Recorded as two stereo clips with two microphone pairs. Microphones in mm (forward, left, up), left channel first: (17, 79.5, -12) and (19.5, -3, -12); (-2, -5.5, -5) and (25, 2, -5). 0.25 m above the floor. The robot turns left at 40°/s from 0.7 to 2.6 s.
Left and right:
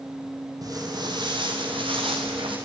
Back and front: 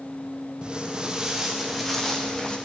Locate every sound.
0.6 s footsteps: 45° right, 5 m; by 2.6 s 100° right, 6 m